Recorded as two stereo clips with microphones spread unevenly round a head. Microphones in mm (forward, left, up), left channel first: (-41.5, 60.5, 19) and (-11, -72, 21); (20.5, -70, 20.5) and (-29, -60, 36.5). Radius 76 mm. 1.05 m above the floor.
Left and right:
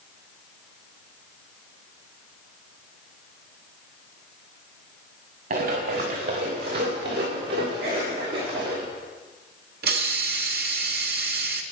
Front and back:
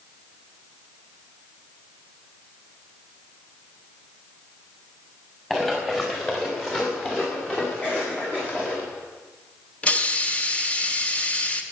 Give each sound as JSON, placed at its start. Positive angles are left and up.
{"t": 5.5, "sound": "running footsteps", "azimuth_deg": -95, "distance_m": 5.0}
{"t": 7.8, "sound": "a cough", "azimuth_deg": -75, "distance_m": 9.0}
{"t": 9.8, "sound": "a hiss", "azimuth_deg": -75, "distance_m": 1.8}